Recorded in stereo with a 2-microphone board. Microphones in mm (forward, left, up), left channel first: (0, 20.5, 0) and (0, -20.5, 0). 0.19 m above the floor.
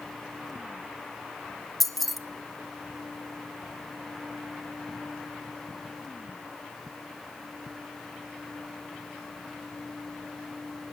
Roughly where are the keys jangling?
Centre.